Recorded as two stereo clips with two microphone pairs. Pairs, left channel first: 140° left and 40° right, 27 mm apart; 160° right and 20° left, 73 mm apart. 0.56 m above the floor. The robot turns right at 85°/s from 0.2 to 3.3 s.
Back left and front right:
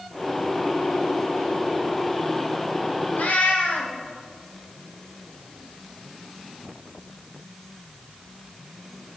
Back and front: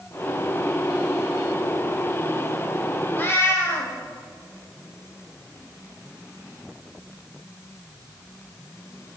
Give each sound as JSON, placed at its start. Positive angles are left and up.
{"t": 3.1, "sound": "a cat meowing", "azimuth_deg": 130, "distance_m": 1.6}